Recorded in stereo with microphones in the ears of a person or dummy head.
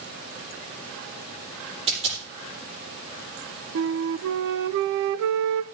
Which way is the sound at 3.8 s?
60° right (ahead or behind).